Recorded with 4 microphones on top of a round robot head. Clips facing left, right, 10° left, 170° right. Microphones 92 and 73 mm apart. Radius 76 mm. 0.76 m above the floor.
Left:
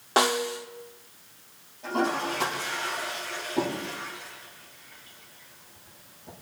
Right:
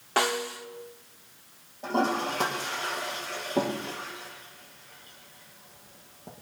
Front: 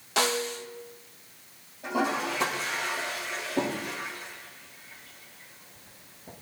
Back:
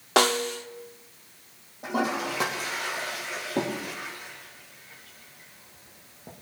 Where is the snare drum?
160° left, 1.0 m.